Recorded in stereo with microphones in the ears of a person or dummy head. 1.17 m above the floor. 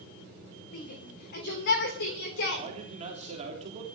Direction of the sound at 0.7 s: 50° left (ahead or behind).